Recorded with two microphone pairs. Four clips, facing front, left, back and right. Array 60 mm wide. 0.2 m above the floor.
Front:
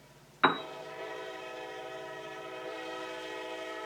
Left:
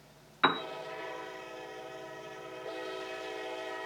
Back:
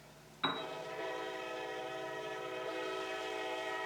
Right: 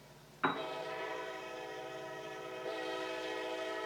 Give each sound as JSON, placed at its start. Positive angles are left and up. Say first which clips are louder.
{"t": 0.4, "sound": "a piano", "louder": "left 7 dB, front 11 dB", "azimuth_deg": 35, "distance_m": 0.5}